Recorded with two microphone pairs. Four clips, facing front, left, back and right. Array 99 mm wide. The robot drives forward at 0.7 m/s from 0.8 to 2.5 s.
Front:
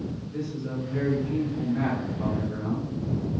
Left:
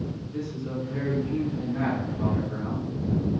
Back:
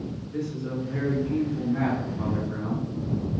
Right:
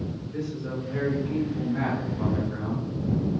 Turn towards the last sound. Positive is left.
turn(degrees=-160)